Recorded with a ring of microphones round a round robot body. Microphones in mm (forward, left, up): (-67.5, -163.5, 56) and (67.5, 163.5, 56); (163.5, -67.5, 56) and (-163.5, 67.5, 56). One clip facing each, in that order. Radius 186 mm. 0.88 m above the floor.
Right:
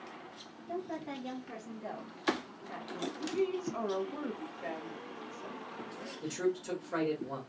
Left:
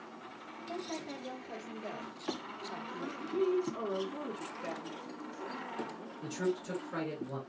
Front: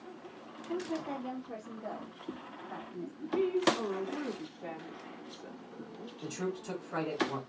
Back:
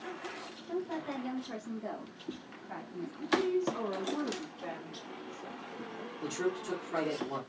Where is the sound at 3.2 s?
120° right, 2.0 m.